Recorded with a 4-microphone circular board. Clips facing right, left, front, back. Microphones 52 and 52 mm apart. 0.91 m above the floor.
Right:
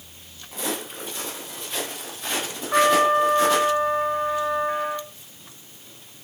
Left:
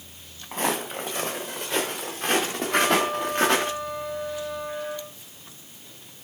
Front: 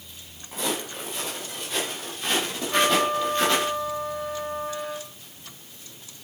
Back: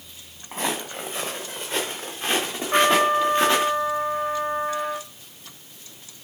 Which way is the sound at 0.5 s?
130° left.